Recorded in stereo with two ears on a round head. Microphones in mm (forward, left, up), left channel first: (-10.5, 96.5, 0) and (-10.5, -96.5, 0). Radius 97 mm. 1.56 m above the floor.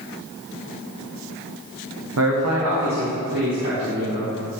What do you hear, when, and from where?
2.2 s a man speaking: 75° right (ahead or behind), 0.8 m; by 4.3 s 60° right (ahead or behind), 4 m